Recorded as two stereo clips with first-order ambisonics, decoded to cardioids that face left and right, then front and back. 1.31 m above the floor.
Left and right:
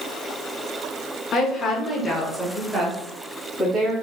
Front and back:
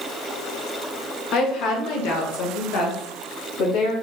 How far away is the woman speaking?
About 1.3 m.